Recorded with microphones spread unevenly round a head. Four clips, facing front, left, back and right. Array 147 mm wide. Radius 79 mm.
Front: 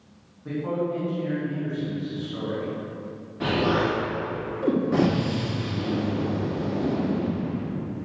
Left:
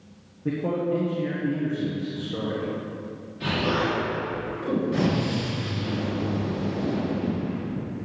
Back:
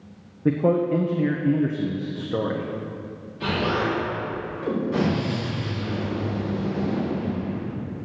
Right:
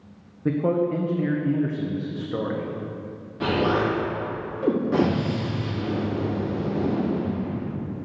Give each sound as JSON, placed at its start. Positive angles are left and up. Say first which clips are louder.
{"t": 0.5, "sound": "a man speaking", "louder": "right 3 dB, back 7 dB", "azimuth_deg": -170, "distance_m": 1.3}
{"t": 3.4, "sound": "an explosion", "louder": "right 3 dB, front 1 dB", "azimuth_deg": -55, "distance_m": 4.0}